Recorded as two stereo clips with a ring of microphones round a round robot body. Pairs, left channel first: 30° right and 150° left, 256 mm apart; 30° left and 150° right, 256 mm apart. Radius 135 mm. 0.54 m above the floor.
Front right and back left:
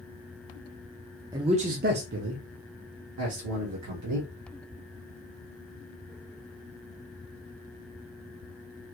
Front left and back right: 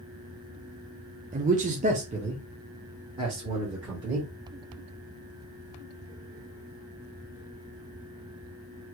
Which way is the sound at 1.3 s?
150° right.